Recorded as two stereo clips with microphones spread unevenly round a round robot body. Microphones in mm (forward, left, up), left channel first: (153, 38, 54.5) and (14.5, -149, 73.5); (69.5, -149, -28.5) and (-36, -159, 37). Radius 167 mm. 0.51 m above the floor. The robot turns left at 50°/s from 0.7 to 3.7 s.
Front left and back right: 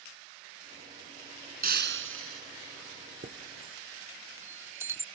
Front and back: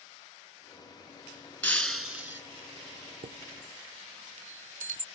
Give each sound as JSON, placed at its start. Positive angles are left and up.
{"t": 1.6, "sound": "breaking glass", "azimuth_deg": -75}
{"t": 3.2, "sound": "a chime", "azimuth_deg": 175}